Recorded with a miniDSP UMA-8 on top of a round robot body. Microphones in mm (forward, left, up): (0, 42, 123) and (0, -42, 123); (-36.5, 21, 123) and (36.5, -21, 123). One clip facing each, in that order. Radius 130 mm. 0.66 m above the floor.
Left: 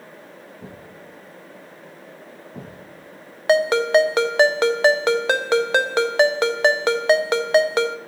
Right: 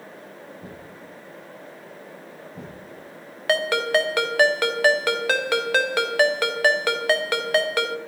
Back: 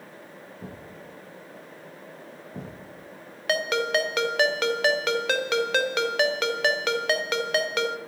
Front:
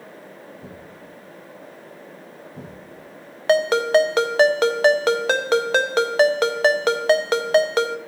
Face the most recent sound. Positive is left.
turn(degrees=25)